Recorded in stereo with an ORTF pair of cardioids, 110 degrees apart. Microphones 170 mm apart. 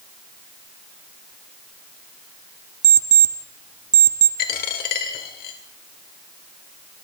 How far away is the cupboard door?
No cupboard door in this recording.